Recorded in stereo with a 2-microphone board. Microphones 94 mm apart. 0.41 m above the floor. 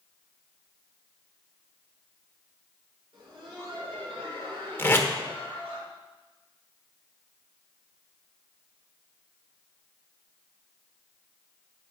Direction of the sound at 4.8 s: 25° left (ahead or behind).